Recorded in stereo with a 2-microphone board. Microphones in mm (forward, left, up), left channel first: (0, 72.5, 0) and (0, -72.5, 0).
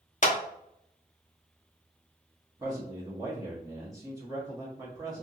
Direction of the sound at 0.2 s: 55° left (ahead or behind).